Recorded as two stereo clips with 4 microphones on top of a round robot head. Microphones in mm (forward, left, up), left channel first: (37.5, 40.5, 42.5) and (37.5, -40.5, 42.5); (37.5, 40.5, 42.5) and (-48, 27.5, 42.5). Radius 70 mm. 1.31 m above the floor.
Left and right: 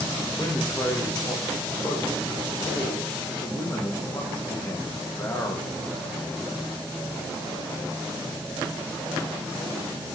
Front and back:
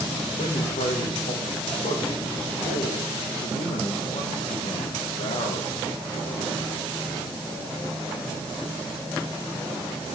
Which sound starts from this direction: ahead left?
A man speaking, at 0.4 s.